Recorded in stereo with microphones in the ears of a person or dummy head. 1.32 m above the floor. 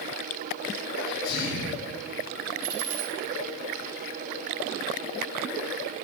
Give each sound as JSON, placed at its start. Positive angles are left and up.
{"t": 1.0, "sound": "a sneeze", "side_deg": 55, "distance_m": 7.5}
{"t": 2.6, "sound": "a dropped coin", "side_deg": -75, "distance_m": 2.0}